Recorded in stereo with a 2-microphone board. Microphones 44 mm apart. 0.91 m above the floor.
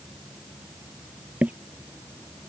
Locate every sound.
1.4 s footsteps: 35° right (ahead or behind)